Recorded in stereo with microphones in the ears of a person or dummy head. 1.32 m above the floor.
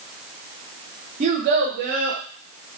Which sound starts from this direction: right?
A child speaking, at 1.2 s.